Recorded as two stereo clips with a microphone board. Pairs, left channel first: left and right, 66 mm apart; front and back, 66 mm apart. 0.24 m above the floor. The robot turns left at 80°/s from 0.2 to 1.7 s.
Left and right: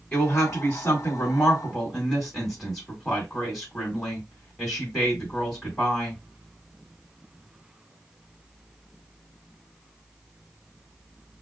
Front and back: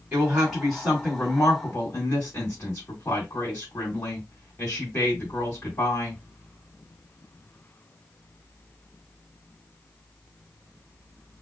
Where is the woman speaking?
125° left, 1.8 m; by 6.2 s 5° left, 1.8 m.